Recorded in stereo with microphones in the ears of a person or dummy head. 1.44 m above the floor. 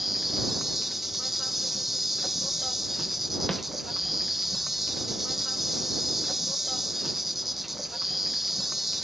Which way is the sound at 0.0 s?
Centre (ahead or behind).